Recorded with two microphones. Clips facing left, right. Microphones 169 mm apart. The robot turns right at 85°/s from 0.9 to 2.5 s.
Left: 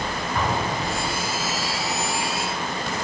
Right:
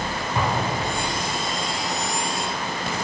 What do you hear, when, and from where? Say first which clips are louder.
0.3 s an explosion: right 1 dB; 20° right (ahead or behind), 1.9 m; by 1.4 s 60° right (ahead or behind), 1.9 m